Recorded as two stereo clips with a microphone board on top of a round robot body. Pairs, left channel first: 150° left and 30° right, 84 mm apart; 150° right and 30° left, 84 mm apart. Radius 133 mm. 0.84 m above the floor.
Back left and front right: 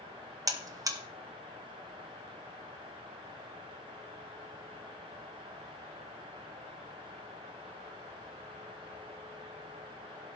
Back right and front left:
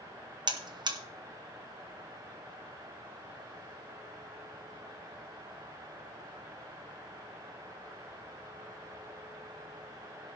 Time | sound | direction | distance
0.5 | a buzzer | 10° left | 1.5 m